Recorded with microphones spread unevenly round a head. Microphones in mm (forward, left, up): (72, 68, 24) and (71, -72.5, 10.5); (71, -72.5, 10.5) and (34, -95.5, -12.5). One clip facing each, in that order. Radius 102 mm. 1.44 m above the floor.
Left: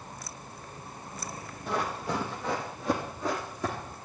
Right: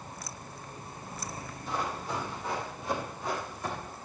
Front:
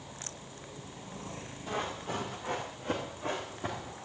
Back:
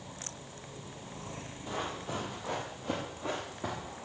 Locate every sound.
1.7 s running footsteps: 105° left, 2.5 m; by 4.0 s 120° left, 3.5 m